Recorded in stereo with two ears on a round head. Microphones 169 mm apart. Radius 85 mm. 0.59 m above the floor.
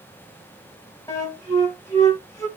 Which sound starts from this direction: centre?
A flute, at 1.1 s.